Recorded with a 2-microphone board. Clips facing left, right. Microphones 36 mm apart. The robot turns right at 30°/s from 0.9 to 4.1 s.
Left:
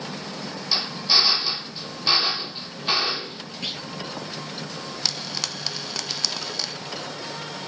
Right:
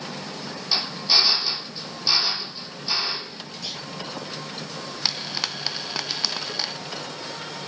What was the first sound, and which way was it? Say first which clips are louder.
A drill: even; 5° right.